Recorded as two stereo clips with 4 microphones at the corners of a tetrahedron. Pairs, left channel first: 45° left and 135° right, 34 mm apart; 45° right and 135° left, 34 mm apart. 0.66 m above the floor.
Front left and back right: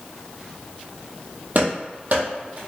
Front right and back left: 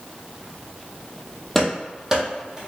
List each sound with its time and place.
1.6 s running footsteps: 130° right, 1.1 m; by 2.6 s 165° right, 1.4 m